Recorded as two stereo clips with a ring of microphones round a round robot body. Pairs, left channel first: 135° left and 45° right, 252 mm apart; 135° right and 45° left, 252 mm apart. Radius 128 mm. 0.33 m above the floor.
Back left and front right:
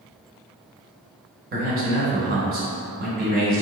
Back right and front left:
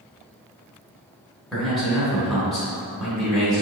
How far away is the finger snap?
No finger snap in this recording.